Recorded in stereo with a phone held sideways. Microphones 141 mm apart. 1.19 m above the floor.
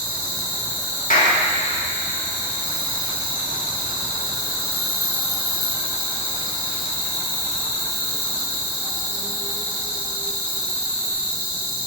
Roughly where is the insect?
Centre.